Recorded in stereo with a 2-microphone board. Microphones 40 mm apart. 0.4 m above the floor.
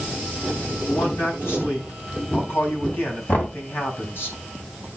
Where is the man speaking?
65° left (ahead or behind), 3.5 m.